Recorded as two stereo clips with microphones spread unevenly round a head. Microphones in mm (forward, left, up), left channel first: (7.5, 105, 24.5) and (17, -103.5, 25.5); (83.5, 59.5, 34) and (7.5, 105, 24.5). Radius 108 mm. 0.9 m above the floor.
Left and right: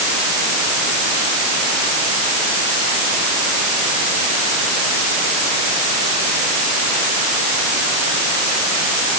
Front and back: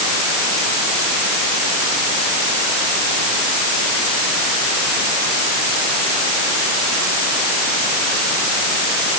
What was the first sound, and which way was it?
Only background noise.